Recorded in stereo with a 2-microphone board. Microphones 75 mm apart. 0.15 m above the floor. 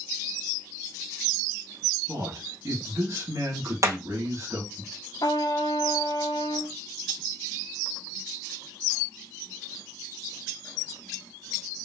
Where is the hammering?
40° right (ahead or behind), 1.8 m.